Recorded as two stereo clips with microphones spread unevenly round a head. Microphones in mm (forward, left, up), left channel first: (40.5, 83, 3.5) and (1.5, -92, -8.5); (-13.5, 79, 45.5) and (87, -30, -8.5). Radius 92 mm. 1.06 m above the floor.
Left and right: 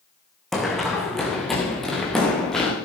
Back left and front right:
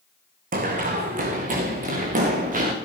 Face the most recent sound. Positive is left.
turn(degrees=-10)